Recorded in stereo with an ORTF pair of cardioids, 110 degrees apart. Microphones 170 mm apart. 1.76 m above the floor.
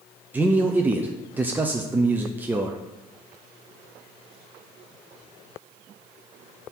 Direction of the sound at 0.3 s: 10° right.